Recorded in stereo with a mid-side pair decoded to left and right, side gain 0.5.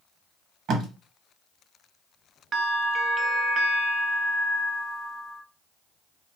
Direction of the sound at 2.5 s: 45° right.